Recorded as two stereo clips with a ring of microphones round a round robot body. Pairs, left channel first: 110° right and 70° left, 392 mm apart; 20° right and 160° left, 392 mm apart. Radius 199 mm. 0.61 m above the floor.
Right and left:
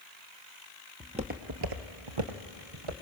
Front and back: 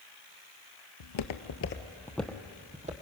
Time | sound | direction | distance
1.0 | footsteps | 15° right | 1.1 m